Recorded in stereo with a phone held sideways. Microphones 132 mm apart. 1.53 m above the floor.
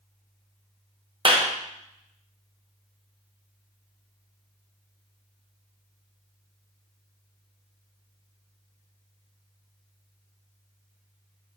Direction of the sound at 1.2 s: 40° right (ahead or behind).